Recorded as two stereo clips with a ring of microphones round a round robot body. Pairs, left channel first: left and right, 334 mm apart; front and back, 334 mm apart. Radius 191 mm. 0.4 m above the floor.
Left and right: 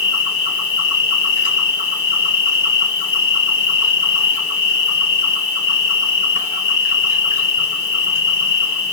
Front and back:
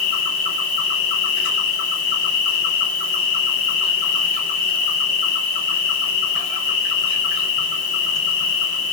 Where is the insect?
45° left, 1.3 m.